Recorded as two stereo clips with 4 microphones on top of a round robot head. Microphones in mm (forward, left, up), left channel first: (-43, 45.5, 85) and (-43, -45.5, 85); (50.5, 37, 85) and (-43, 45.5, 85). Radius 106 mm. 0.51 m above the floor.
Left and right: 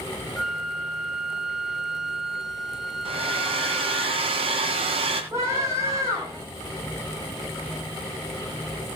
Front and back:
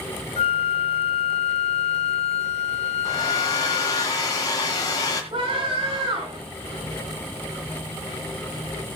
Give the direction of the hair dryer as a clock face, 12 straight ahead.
2 o'clock.